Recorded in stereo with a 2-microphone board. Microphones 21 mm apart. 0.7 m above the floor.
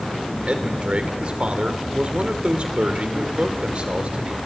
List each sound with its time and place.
0.5 s a man speaking: 65° right (ahead or behind), 1.9 m